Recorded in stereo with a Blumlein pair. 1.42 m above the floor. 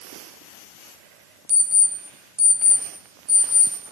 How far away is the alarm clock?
About 2.0 m.